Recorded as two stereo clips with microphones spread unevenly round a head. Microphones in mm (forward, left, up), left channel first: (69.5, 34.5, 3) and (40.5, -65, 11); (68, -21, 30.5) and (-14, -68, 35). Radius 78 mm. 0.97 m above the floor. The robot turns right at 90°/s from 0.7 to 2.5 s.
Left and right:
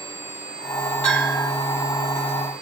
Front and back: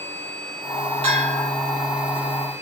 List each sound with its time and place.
1.0 s a bell: 160° left, 4.5 m; by 1.5 s 160° right, 4.5 m